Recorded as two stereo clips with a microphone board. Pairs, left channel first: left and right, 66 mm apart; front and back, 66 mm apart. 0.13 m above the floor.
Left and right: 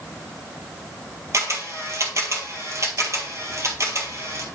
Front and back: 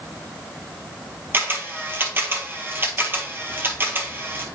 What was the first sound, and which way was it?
A camera shutter, 125° right.